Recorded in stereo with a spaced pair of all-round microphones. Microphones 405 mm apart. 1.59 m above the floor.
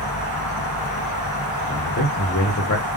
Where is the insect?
45° left (ahead or behind), 0.7 m.